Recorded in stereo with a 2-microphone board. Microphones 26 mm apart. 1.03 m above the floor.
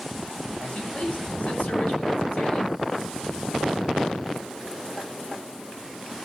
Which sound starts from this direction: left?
A man speaking, at 0.6 s.